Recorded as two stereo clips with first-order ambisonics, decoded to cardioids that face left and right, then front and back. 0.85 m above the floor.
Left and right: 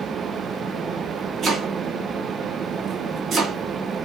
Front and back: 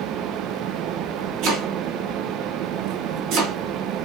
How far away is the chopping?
About 2 m.